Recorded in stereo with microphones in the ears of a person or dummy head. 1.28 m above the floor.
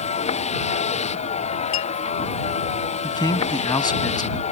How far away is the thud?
I don't hear a thud.